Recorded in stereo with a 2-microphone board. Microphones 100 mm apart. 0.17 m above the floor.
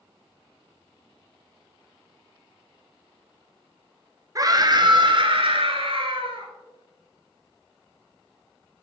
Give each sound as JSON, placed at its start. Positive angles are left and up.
{"t": 4.3, "sound": "a scream", "side_deg": -35, "distance_m": 2.0}